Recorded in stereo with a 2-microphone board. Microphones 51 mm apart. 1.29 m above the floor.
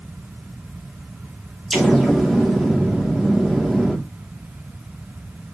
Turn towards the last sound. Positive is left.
turn(degrees=0)  # may be behind; listen again after turning